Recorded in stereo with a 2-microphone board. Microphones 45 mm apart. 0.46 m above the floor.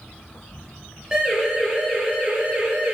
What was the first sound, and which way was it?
An insect, 40° left (ahead or behind).